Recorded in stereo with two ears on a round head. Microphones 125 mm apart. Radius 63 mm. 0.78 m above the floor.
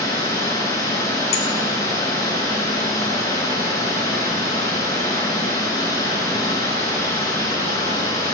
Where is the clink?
45° left (ahead or behind), 2 m.